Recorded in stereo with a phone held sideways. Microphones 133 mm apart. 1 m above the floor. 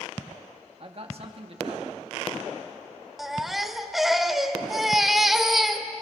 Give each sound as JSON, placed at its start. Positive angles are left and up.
{"t": 0.8, "sound": "a man speaking", "side_deg": -45, "distance_m": 1.8}
{"t": 3.2, "sound": "a baby crying", "side_deg": 0, "distance_m": 1.2}